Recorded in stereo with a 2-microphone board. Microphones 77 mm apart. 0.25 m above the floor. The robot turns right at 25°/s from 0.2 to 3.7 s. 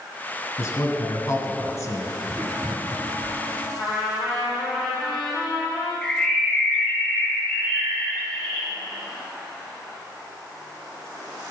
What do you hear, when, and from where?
0.6 s a man speaking: 65° left, 1.8 m; by 2.2 s 105° left, 1.8 m
2.3 s writing: 60° right (ahead or behind), 2.5 m; by 3.4 s 55° right (ahead or behind), 2.5 m
3.8 s a trumpet: 20° left (ahead or behind), 4.5 m
6.0 s a bird: 15° left (ahead or behind), 2.5 m